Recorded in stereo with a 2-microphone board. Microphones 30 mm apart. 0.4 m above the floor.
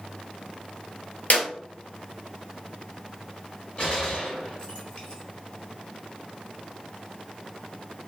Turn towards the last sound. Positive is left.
turn(degrees=35)  # may be behind; listen again after turning